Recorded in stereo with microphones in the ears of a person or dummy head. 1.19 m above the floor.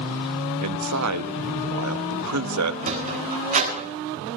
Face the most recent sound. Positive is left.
turn(degrees=-40)  # may be behind; listen again after turning